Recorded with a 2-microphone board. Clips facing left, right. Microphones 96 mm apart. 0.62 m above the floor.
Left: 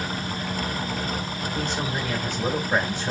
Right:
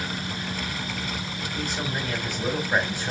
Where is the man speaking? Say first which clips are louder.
Left 2 dB; 15° left (ahead or behind), 3.5 m.